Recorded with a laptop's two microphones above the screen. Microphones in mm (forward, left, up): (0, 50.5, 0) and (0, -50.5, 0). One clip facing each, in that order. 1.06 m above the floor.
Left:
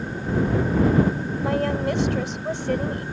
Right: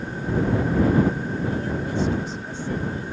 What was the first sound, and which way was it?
A woman speaking, 65° left (ahead or behind).